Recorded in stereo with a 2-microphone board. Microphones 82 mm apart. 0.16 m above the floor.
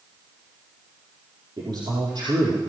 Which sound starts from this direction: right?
A man speaking, at 1.6 s.